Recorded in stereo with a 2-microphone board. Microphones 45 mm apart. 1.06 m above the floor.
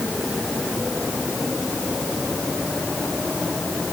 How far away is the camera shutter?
I don't hear a camera shutter.